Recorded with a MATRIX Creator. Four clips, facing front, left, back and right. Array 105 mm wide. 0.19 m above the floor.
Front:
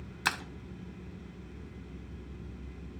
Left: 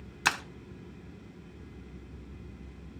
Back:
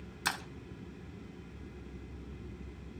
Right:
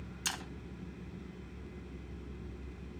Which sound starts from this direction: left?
Breaking glass, at 0.2 s.